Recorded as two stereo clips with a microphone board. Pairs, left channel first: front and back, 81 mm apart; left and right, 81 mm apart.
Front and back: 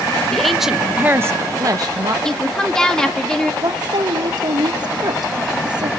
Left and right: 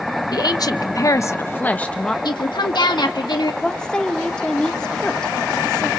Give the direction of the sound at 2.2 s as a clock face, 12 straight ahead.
9 o'clock.